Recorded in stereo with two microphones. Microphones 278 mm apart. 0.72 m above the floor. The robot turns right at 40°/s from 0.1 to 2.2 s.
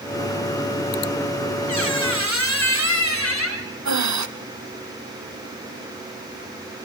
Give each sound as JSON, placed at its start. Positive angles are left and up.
{"t": 1.7, "sound": "a squeak", "side_deg": 85, "distance_m": 2.5}
{"t": 3.9, "sound": "breathing", "side_deg": -80, "distance_m": 0.7}